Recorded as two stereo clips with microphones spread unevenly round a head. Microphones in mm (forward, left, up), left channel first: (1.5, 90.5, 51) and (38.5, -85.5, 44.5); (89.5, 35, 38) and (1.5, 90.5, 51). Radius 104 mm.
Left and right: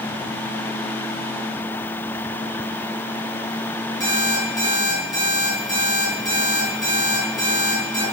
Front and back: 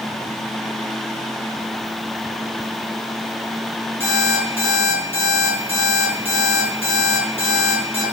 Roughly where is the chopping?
No chopping in this recording.